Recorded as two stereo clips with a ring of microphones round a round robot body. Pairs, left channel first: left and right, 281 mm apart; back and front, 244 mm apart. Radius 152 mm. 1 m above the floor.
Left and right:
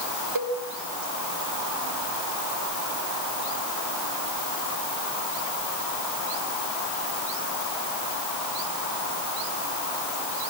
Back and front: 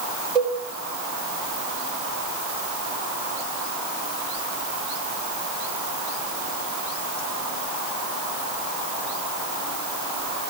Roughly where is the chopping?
No chopping in this recording.